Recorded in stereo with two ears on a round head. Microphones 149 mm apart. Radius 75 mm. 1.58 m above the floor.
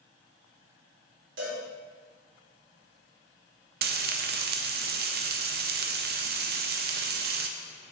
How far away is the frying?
About 0.6 m.